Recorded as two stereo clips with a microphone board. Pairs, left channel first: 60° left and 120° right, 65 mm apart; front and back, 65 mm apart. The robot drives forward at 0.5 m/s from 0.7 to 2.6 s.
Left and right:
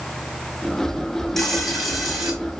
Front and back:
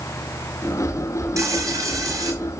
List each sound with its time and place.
1.4 s frying: 145° left, 1.4 m; by 2.3 s 155° left, 1.8 m